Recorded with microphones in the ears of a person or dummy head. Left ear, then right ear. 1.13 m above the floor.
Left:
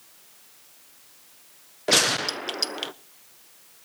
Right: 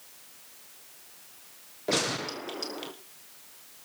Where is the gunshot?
45° left (ahead or behind), 0.5 m.